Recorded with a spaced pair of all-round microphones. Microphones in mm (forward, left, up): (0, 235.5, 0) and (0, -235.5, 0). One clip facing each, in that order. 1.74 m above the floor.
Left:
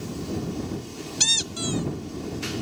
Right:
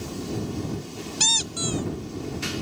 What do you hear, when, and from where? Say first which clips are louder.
1.2 s a squeak: left 1 dB; 40° left (ahead or behind)